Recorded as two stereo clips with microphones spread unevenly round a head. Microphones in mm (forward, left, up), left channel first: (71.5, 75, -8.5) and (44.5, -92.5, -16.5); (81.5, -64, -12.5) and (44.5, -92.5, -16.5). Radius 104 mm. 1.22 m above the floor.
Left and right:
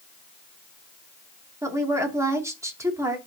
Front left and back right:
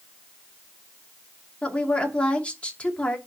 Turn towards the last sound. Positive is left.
turn(degrees=-25)